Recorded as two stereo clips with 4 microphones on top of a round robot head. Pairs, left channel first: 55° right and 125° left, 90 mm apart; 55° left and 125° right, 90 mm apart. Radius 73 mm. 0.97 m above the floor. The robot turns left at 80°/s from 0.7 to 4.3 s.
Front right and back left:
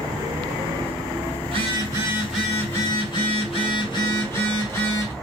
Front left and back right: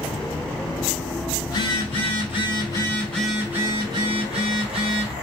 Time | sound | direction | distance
1.4 | a phone buzzing | 110° left | 4.5 m